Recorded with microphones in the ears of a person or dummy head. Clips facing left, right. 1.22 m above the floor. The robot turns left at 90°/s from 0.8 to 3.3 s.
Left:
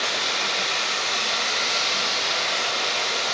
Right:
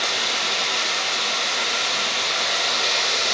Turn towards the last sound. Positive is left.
turn(degrees=-85)